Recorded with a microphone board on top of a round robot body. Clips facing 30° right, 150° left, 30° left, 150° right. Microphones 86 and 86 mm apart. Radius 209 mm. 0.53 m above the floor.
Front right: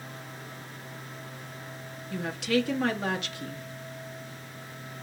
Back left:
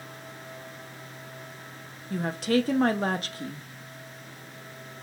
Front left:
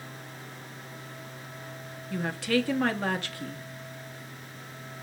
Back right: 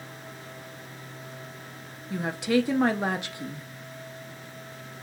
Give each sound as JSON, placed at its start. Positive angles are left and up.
{"t": 2.1, "sound": "a woman speaking", "azimuth_deg": 145, "distance_m": 0.8}